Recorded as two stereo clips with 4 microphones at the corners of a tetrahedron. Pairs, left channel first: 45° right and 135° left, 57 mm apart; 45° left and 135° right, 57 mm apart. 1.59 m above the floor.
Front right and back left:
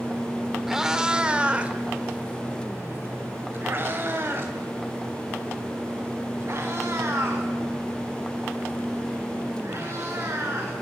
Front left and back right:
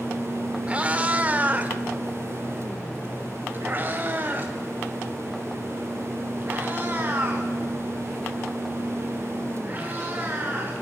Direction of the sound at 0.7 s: 150° right.